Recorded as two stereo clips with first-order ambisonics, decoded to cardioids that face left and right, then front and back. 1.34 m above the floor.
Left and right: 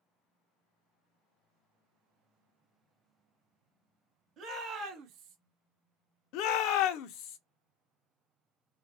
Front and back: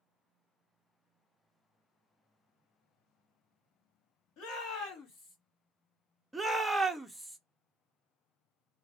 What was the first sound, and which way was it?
A shout, 25° right.